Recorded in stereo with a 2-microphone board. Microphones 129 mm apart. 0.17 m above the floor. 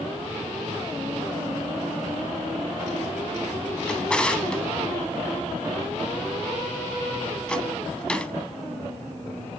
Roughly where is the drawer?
Centre.